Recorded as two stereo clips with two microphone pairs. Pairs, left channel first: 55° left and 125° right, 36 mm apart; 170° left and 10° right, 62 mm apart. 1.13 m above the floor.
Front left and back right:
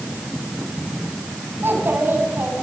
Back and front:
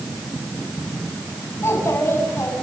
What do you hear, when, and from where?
1.6 s a child speaking: 140° right, 6.5 m